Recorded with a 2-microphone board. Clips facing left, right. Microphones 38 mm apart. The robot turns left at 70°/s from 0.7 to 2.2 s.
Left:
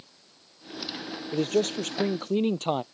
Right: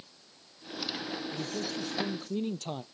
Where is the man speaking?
110° left; by 2.8 s 50° left.